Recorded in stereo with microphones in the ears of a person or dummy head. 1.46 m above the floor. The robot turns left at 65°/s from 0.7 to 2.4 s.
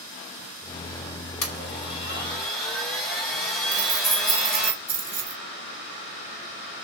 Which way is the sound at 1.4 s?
90° left.